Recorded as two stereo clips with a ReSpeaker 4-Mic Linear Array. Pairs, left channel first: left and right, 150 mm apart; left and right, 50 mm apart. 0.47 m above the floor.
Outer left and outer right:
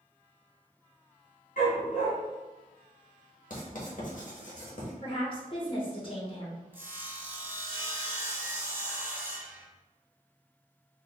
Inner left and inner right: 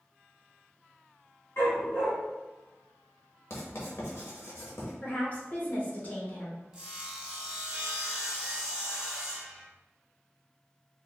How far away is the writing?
About 1.1 m.